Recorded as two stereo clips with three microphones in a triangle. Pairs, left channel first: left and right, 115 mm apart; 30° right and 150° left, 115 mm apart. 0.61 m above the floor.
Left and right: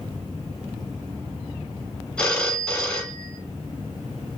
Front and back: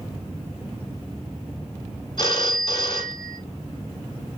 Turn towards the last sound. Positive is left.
turn(degrees=10)